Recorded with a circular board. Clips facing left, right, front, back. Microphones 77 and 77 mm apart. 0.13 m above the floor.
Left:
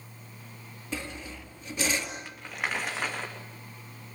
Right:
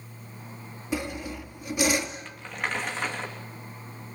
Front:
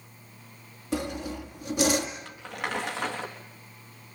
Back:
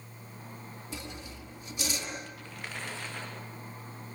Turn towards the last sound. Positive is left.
turn(degrees=5)